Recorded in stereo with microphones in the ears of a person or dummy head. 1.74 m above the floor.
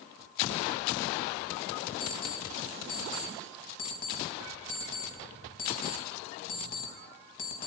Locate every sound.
2.0 s an alarm clock: 50° left (ahead or behind), 4.5 m